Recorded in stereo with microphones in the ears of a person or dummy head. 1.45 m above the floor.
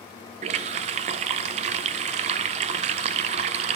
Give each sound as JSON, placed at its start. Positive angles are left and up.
{"t": 0.4, "sound": "a running tap", "side_deg": -35, "distance_m": 0.5}